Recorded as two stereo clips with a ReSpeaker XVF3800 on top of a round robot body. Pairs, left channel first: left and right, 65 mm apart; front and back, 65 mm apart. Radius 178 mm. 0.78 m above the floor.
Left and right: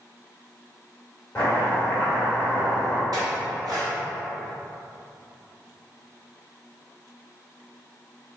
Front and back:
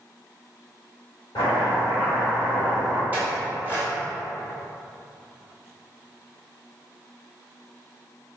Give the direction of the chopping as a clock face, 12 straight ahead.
11 o'clock.